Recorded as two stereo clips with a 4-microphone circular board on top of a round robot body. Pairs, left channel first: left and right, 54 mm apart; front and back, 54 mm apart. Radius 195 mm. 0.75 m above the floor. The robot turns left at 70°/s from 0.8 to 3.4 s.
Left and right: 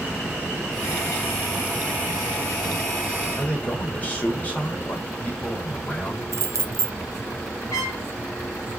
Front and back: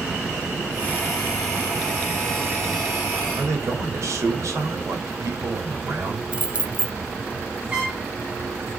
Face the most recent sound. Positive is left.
turn(degrees=115)